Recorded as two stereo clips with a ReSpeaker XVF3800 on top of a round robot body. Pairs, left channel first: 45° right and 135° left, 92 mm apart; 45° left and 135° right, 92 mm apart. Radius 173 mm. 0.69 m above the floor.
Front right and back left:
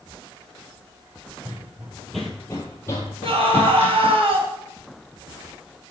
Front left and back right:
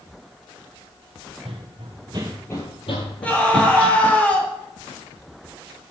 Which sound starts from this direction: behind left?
A scream, at 3.2 s.